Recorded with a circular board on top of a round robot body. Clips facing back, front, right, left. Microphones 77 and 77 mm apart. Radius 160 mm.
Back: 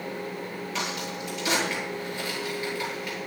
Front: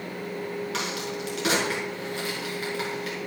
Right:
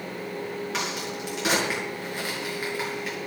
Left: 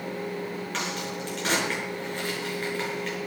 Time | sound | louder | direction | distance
0.7 | a crack | front 1 dB, right 1 dB | 10° right | 6 m